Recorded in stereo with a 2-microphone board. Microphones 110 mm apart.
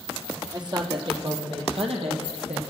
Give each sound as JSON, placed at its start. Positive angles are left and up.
{"t": 0.5, "sound": "a woman speaking", "side_deg": -40, "distance_m": 3.0}